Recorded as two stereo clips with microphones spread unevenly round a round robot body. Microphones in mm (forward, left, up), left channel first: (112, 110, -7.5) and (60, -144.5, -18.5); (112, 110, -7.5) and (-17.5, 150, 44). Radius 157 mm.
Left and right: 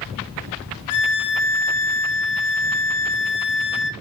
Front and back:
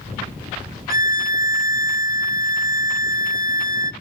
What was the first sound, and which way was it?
A violin, 110° left.